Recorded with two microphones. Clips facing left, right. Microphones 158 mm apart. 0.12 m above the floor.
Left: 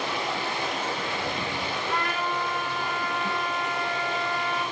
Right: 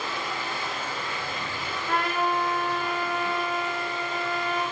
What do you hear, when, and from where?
0.0 s running water: 70° left (ahead or behind), 3.5 m
1.9 s a trumpet: 65° right (ahead or behind), 6.5 m